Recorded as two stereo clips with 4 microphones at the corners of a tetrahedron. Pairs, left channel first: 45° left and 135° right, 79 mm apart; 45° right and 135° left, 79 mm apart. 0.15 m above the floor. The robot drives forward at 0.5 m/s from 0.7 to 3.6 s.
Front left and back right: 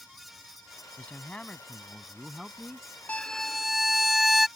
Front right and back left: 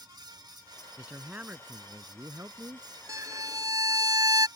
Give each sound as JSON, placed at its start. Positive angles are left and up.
{"t": 1.0, "sound": "a man speaking", "azimuth_deg": 85}
{"t": 3.1, "sound": "a violin", "azimuth_deg": 115}